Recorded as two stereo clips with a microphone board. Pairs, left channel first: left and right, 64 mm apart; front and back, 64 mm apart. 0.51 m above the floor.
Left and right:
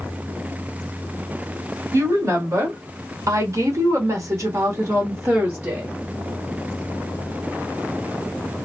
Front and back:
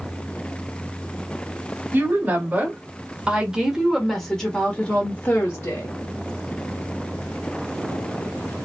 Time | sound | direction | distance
1.9 | a woman speaking | 125° right | 1.8 m